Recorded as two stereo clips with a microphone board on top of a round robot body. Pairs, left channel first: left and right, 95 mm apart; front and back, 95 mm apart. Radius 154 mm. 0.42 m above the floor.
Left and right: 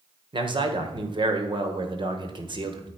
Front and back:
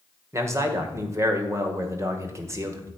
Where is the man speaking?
120° right, 1.9 m.